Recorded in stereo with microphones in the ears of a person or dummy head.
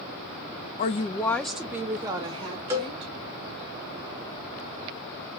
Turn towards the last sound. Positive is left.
turn(degrees=-15)  # may be behind; listen again after turning